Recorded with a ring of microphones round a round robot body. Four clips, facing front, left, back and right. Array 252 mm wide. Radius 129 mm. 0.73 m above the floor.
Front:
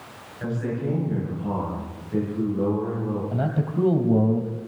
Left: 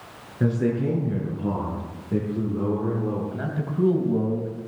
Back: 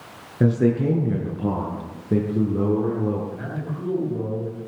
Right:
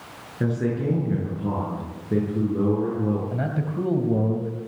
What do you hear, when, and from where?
0.4 s a man speaking: straight behind, 10 m; by 3.2 s 155° right, 10 m
3.3 s a man speaking: 30° right, 4 m